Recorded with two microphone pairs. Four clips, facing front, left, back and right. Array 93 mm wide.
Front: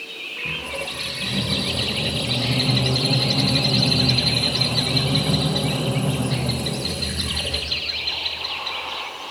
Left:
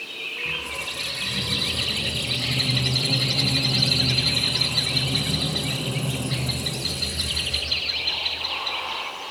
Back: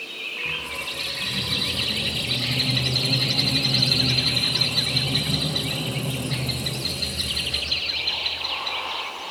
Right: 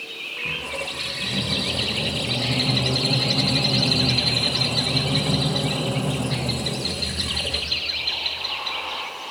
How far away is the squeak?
About 3 m.